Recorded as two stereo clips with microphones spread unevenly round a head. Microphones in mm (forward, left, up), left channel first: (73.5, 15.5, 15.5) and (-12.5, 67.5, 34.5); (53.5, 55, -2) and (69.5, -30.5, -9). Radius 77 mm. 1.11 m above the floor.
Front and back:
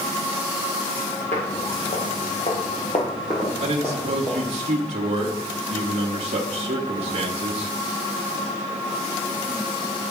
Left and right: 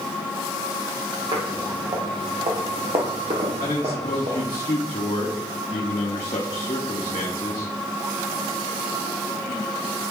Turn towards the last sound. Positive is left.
turn(degrees=150)